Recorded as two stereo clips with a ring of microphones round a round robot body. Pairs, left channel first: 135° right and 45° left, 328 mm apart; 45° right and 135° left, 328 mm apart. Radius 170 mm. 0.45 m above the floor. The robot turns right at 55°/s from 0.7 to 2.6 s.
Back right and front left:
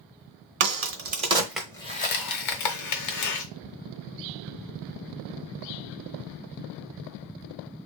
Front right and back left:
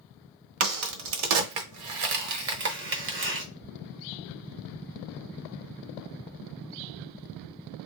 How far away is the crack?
About 1.1 m.